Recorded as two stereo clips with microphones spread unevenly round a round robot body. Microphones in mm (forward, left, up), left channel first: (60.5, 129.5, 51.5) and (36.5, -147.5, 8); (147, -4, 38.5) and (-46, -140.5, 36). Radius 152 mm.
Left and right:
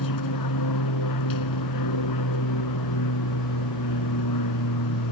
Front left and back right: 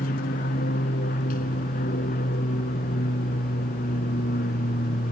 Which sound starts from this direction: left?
An aircraft, at 0.0 s.